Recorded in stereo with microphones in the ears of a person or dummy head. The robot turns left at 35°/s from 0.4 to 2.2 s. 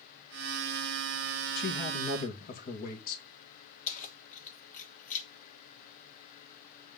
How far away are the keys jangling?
About 2.0 m.